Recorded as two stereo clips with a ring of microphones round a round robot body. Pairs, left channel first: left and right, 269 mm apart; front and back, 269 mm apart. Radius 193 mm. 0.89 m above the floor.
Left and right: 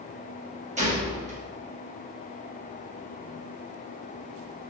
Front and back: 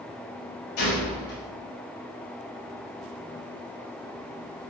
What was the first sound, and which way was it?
A gunshot, 25° right.